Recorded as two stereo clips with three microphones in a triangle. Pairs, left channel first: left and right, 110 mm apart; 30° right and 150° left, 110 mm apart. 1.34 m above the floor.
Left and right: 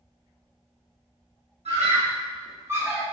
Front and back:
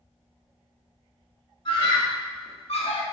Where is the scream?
75° right, 0.8 m; by 3.0 s 10° right, 0.7 m.